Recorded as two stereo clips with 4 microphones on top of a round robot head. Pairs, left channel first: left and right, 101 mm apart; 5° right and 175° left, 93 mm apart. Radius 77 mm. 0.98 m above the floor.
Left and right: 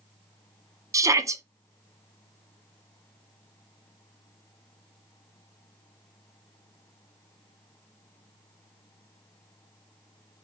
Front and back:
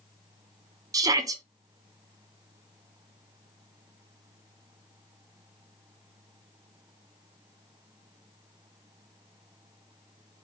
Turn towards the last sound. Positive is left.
turn(degrees=-140)